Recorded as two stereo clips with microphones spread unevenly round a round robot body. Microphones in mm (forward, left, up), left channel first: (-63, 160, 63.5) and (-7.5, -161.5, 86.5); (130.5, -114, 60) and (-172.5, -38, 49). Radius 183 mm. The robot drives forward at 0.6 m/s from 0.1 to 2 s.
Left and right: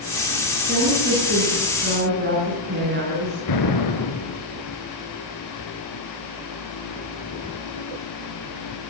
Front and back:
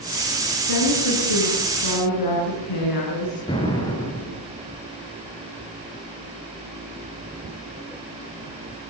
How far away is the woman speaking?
About 9.5 m.